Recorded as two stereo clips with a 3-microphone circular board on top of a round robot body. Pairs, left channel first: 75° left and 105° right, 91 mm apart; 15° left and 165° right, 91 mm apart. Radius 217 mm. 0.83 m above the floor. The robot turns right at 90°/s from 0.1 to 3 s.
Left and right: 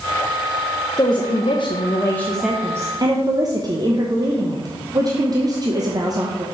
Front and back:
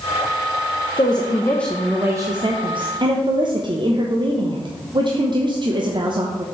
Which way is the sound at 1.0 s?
35° left.